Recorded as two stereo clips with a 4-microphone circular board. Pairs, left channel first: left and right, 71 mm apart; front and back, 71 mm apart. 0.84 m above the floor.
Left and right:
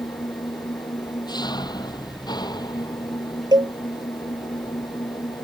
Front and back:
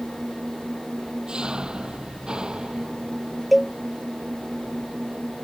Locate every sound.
0.0 s an engine running: 100° left
3.5 s a cowbell: 90° right